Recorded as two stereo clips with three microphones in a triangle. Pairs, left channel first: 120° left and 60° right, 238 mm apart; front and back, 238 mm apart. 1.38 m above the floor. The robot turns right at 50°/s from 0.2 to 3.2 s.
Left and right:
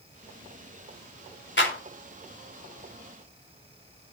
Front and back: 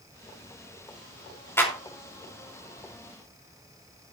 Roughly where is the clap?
Left.